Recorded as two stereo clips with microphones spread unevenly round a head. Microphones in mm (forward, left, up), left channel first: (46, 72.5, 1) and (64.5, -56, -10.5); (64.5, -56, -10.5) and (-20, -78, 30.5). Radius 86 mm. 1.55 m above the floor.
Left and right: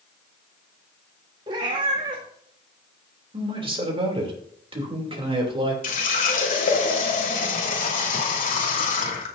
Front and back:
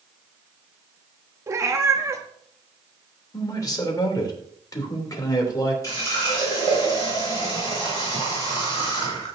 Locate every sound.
1.5 s a cat meowing: 140° right, 1.4 m
3.3 s a man speaking: 35° right, 3 m
5.8 s a running tap: 90° left, 2.5 m